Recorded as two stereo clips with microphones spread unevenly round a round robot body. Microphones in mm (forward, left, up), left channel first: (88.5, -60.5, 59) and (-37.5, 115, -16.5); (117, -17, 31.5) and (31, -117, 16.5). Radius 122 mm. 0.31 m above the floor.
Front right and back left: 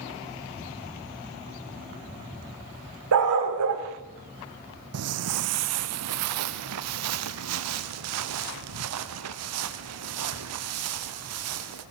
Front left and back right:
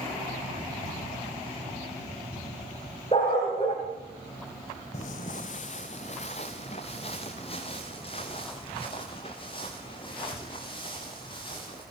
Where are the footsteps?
100° left, 0.6 m; by 11.8 s 120° left, 4.5 m.